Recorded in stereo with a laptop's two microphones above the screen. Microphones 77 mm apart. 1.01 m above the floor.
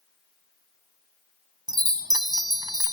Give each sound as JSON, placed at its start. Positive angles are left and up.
{"t": 1.7, "sound": "a chime", "side_deg": -65}